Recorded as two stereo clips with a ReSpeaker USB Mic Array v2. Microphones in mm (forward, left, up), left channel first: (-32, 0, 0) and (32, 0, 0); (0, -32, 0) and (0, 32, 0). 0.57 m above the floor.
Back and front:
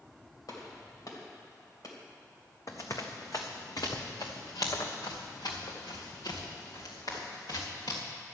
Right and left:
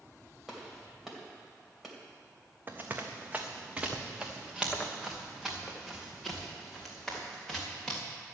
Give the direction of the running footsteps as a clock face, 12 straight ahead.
7 o'clock.